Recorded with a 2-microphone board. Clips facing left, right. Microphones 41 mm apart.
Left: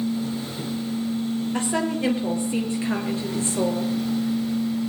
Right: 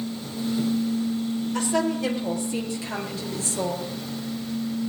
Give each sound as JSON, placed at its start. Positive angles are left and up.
{"t": 1.5, "sound": "a woman speaking", "side_deg": 25, "distance_m": 4.5}